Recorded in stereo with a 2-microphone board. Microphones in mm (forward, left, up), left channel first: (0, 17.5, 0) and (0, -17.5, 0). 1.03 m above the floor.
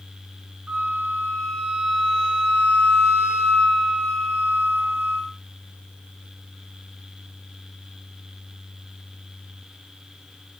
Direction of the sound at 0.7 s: 10° right (ahead or behind).